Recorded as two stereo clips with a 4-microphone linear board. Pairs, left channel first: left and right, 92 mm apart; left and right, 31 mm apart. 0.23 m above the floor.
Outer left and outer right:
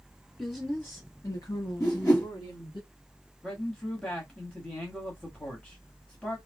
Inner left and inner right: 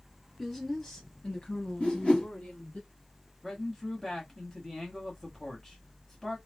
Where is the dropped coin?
I don't hear a dropped coin.